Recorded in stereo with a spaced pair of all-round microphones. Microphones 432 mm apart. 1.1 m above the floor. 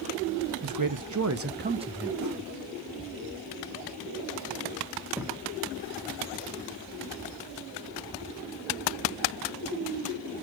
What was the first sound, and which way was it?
A man speaking, 50° right (ahead or behind).